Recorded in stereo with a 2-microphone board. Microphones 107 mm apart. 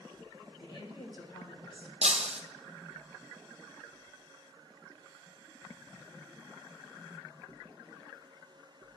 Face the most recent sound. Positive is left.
turn(degrees=-80)